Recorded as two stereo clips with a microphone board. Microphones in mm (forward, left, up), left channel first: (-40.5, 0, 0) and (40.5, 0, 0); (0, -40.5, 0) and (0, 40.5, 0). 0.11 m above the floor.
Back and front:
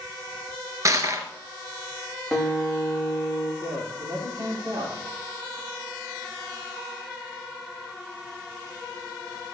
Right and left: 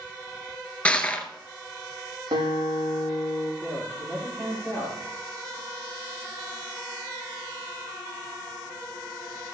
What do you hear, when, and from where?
0.8 s crushing: 20° right, 1.2 m
2.3 s a guitar: 95° left, 5 m
3.6 s a man speaking: 35° left, 6.5 m